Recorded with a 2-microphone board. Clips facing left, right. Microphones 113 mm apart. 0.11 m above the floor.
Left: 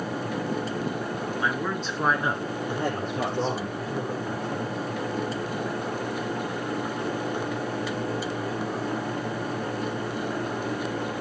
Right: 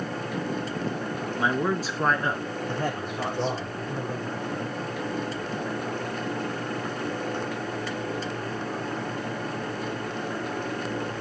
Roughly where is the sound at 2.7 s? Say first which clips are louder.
Left 2 dB; left.